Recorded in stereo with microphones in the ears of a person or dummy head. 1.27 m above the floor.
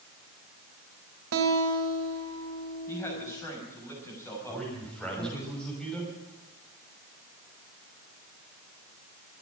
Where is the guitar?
70° right (ahead or behind), 2 m.